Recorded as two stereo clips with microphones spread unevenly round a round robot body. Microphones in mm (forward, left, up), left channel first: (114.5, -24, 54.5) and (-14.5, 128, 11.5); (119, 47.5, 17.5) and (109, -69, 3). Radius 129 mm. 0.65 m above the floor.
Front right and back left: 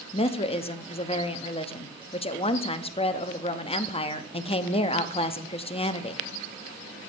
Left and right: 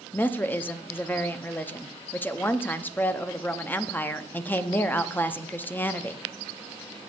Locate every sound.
0.1 s a woman speaking: 10° left, 0.7 m